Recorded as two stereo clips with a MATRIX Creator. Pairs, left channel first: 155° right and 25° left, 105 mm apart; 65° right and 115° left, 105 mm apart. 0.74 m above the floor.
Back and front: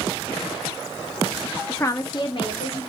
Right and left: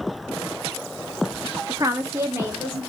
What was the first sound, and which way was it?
A woman speaking, 135° left.